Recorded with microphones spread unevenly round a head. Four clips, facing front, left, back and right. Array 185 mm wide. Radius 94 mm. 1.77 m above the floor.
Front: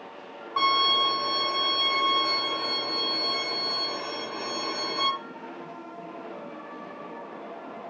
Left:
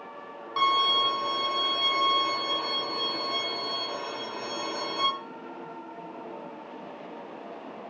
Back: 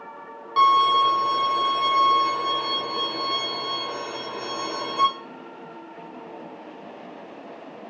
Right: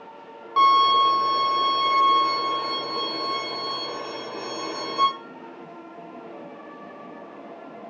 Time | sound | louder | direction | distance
0.6 | a violin | right 8 dB, back 7 dB | 120° right | 1.7 m